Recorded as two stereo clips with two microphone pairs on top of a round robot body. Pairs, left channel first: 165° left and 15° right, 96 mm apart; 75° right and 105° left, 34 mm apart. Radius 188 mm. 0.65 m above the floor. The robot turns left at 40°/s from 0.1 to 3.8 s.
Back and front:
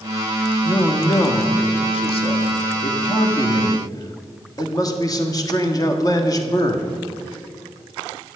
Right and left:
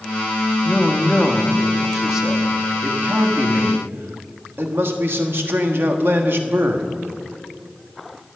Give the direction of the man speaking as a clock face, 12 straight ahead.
4 o'clock.